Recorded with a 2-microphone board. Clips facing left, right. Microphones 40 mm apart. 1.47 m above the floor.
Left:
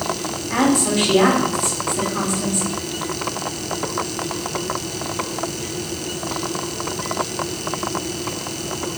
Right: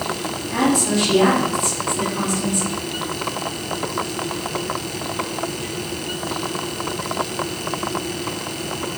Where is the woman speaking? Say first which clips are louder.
Left 1 dB; 40° left (ahead or behind), 3 m.